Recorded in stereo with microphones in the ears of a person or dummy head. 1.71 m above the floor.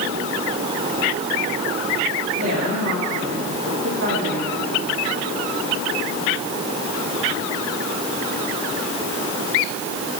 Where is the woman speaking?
55° right (ahead or behind), 4 m; by 4.6 s 85° right, 3.5 m.